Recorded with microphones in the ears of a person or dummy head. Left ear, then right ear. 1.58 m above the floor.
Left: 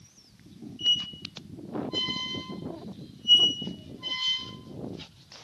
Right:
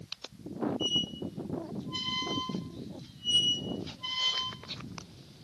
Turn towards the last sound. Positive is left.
turn(degrees=35)  # may be behind; listen again after turning